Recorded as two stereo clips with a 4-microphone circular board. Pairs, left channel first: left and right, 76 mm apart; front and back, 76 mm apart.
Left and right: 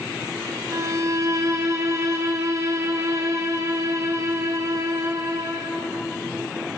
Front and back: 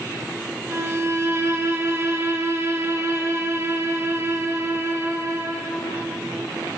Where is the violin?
130° right, 2.5 m.